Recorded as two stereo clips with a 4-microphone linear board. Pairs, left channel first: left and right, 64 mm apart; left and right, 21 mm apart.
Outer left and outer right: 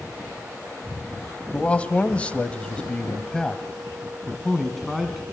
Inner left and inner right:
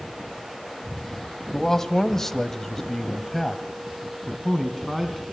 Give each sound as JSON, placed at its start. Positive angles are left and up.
{"t": 1.5, "sound": "a man speaking", "side_deg": 20, "distance_m": 1.8}